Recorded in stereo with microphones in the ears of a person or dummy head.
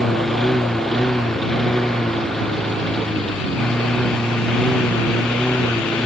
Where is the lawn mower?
Centre (ahead or behind); by 6.1 s 5° left (ahead or behind).